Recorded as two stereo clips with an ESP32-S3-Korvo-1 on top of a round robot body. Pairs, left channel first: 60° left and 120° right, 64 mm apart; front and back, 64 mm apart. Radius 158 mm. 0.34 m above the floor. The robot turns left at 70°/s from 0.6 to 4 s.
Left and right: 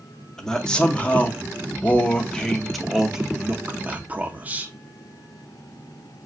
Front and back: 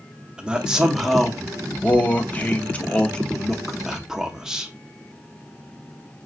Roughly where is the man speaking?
Behind left.